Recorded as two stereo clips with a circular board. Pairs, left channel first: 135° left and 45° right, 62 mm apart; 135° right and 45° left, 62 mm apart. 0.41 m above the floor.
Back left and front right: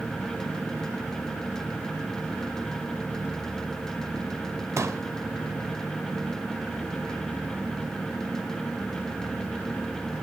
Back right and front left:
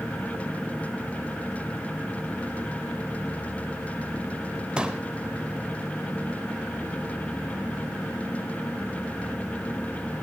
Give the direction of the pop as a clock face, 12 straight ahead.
1 o'clock.